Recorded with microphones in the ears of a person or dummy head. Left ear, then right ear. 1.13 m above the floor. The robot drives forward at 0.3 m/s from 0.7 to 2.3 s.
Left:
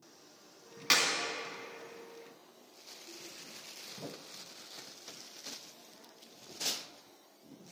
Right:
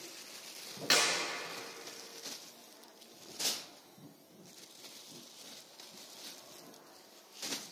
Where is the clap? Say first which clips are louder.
Left 1 dB; 15° left (ahead or behind), 2 m; by 1.1 s 20° left (ahead or behind), 2 m.